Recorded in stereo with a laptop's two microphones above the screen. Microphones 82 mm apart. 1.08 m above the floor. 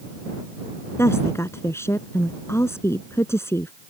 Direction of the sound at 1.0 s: 30° left (ahead or behind).